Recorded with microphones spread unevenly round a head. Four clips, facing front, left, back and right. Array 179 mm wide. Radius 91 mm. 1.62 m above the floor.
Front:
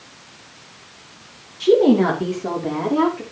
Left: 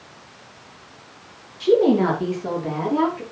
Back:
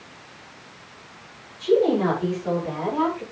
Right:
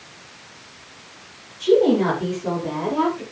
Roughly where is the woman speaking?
Ahead.